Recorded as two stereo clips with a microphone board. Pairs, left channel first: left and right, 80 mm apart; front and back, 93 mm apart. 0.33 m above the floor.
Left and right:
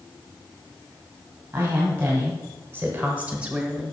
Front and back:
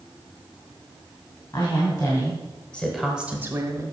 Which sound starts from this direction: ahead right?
A woman speaking, at 1.5 s.